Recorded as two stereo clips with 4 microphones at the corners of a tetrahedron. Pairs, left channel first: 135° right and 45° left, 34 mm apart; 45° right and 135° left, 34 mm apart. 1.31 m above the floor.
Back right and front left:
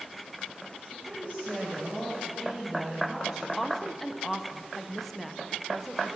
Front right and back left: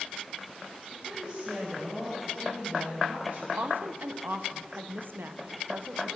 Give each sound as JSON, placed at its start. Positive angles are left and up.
{"t": 0.9, "sound": "a woman speaking", "azimuth_deg": -155, "distance_m": 3.0}
{"t": 3.6, "sound": "a woman speaking", "azimuth_deg": 140, "distance_m": 0.6}